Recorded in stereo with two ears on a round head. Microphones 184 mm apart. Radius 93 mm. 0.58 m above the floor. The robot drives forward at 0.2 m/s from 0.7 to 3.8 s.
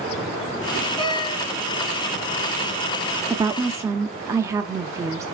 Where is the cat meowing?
25° left (ahead or behind), 1.9 m; by 1.5 s 20° left (ahead or behind), 2.0 m.